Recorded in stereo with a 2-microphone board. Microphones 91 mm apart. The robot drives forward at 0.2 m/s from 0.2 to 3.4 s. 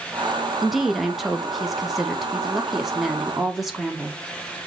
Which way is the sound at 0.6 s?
Centre (ahead or behind).